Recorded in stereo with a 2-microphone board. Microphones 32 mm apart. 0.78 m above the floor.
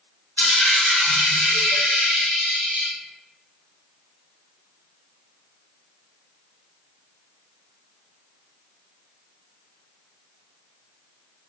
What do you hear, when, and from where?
0.4 s a dropped coin: 75° left (ahead or behind), 1.2 m